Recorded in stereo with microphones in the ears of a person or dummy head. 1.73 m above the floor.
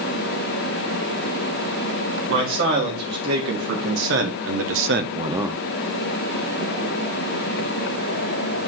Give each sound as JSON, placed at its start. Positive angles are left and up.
{"t": 2.3, "sound": "a man speaking", "side_deg": -60, "distance_m": 3.5}